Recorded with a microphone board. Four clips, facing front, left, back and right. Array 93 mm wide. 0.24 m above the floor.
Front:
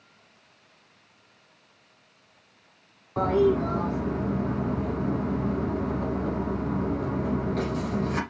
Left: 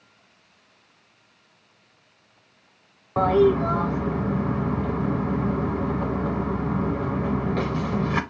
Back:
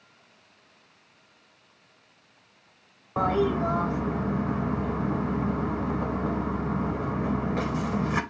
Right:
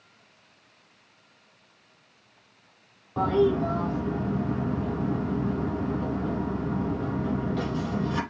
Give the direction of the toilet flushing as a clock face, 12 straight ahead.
8 o'clock.